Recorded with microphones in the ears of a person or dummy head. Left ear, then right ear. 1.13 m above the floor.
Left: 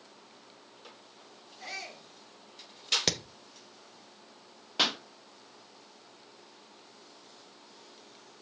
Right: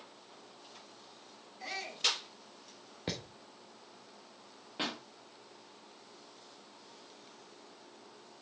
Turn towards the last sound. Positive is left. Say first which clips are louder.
# left 10 dB
turn(degrees=40)  # may be behind; listen again after turning